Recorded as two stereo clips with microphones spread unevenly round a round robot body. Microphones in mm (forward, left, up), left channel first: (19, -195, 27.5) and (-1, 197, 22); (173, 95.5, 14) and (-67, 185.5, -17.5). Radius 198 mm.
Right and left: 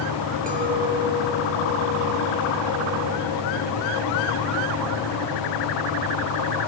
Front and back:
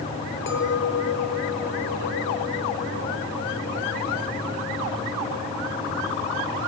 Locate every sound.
0.5 s a clink: 20° left, 4.5 m